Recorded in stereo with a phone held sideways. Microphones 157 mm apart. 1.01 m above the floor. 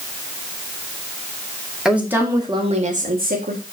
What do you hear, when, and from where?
1.9 s a woman speaking: 5° right (ahead or behind), 2 m; by 3.6 s 80° right, 2 m